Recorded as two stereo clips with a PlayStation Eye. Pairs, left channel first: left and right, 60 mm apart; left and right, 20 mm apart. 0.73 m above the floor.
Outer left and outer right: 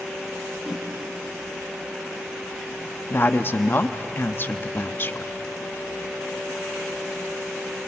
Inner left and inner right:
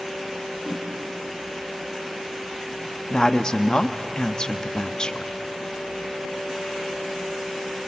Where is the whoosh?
Centre (ahead or behind), 4 m.